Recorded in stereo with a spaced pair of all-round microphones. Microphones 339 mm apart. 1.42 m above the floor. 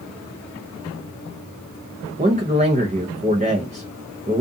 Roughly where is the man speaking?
Right.